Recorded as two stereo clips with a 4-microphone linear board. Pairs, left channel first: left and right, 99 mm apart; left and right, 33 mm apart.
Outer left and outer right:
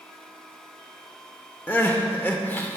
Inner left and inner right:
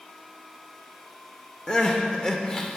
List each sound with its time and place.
1.7 s crying: 20° left (ahead or behind), 0.8 m